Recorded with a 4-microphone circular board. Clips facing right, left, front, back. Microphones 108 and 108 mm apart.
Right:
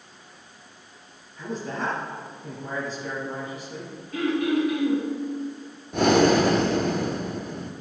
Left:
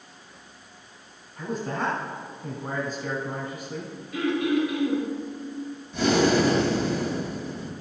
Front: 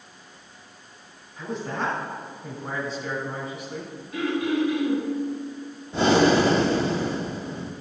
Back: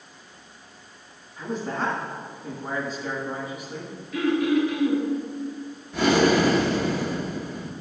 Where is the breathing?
60° right, 0.6 m.